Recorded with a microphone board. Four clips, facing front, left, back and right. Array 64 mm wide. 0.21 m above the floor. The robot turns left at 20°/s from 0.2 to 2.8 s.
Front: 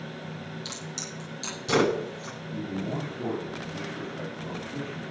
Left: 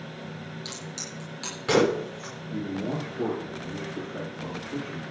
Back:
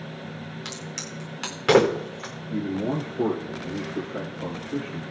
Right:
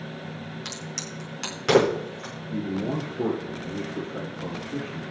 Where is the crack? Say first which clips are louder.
Right 2 dB, back 2 dB; 140° right, 8 m; by 2.3 s 175° right, 8 m.